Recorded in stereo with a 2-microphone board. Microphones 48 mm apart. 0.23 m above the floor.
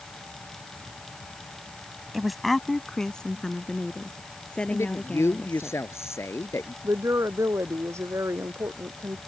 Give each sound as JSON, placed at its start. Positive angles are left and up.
{"t": 2.1, "sound": "a woman speaking", "side_deg": -5}
{"t": 4.7, "sound": "a man speaking", "side_deg": 70}
{"t": 6.8, "sound": "a woman speaking", "side_deg": -80}